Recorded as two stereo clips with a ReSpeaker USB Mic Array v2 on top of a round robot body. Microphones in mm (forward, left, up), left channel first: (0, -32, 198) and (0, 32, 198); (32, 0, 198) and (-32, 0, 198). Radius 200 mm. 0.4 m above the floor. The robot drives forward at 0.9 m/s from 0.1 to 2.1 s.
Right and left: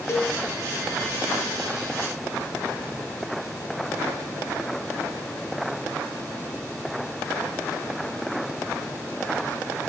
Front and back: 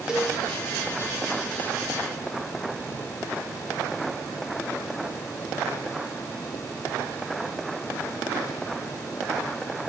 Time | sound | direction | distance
0.1 | a cowbell | 105° right | 1.8 m